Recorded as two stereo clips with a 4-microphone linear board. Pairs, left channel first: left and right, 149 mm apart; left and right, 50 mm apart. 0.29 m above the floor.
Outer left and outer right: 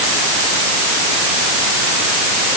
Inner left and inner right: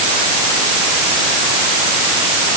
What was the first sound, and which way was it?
Only background noise.